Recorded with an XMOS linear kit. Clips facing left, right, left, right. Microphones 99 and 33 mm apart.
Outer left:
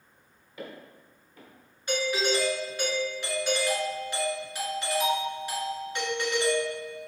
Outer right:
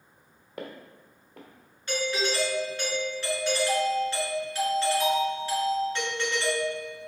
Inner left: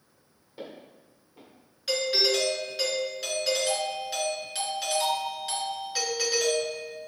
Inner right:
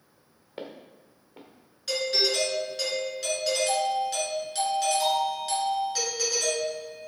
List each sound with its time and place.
0.6 s footsteps: 60° right (ahead or behind), 1.5 m
1.9 s a doorbell: 15° left (ahead or behind), 1.6 m